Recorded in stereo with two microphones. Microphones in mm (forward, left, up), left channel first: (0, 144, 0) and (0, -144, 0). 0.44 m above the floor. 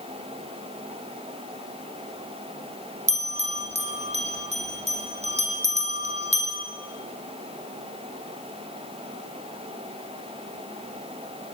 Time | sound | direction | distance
3.1 | a bell | 20° right (ahead or behind) | 4 m